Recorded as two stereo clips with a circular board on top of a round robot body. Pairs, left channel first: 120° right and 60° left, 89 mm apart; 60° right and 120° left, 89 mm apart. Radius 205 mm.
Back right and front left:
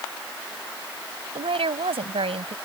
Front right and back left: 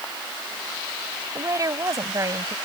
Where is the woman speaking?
70° left.